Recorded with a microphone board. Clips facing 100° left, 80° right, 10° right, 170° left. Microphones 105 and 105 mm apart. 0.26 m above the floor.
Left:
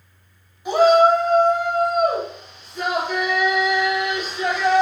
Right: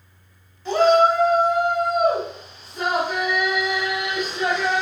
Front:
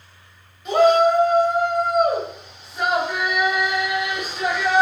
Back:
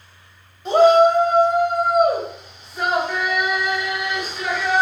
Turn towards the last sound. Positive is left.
turn(degrees=-80)